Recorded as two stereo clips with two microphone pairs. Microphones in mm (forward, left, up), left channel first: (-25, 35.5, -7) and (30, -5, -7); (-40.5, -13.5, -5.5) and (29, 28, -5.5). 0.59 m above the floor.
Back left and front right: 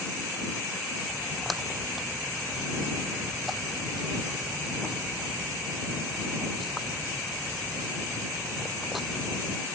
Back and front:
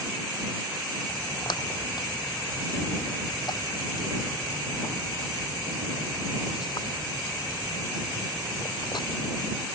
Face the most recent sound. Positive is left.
turn(degrees=-125)